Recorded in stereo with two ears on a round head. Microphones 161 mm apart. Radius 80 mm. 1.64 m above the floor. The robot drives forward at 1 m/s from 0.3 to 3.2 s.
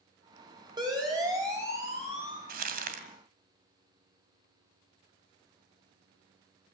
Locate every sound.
0.8 s a siren: 25° right (ahead or behind), 8 m; by 2.4 s 10° right (ahead or behind), 9.5 m
2.5 s crumpling: 50° right (ahead or behind), 2 m; by 3.0 s 45° right (ahead or behind), 2.5 m